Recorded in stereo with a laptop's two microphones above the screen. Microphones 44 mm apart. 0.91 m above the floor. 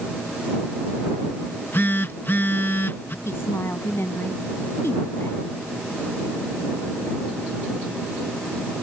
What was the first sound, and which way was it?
A phone buzzing, 55° left (ahead or behind).